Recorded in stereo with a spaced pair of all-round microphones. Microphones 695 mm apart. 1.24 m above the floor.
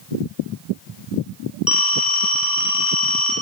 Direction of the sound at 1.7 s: Centre (ahead or behind).